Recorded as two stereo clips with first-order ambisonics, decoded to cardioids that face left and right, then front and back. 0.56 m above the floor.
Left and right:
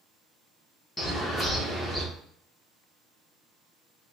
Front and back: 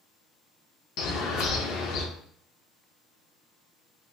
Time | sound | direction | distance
1.0 | a bird | 15° left | 0.6 m